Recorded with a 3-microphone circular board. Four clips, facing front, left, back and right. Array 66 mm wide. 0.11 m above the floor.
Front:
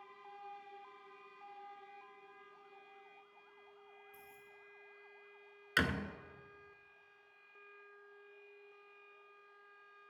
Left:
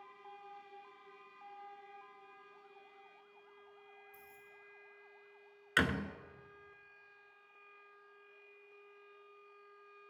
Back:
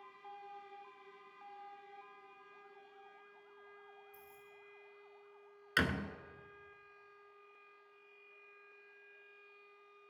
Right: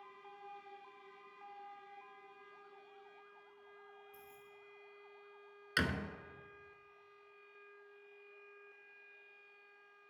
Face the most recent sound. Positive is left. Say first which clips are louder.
# left 4 dB, even
turn(degrees=90)